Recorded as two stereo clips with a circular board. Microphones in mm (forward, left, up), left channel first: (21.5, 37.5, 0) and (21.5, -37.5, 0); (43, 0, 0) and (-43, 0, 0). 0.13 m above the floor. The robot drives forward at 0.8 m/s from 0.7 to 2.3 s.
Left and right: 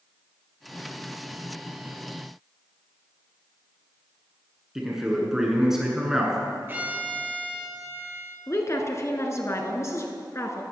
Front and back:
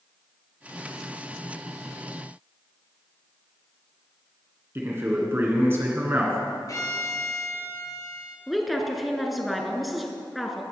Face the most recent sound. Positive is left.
turn(degrees=90)